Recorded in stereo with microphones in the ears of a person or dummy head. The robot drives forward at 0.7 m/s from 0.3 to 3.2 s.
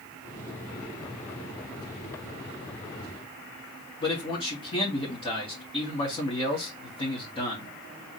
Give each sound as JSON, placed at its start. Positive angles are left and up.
{"t": 4.0, "sound": "a man speaking", "side_deg": 25, "distance_m": 1.9}